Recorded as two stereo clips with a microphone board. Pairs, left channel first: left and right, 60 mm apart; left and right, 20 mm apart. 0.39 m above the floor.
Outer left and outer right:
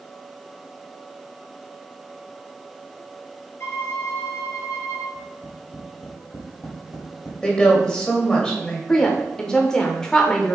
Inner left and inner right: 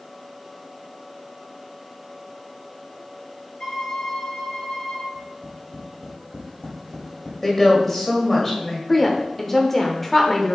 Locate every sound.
3.6 s a violin: 55° left (ahead or behind), 2.5 m
5.2 s tapping: 80° left, 3.5 m
7.4 s a woman speaking: 15° left (ahead or behind), 1.8 m
8.9 s a woman speaking: 10° left (ahead or behind), 0.8 m